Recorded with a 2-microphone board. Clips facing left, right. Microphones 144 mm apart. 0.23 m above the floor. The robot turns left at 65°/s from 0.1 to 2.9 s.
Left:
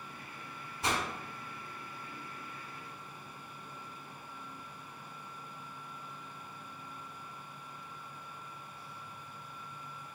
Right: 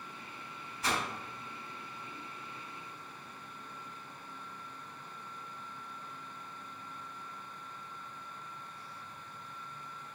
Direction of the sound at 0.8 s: 30° left (ahead or behind).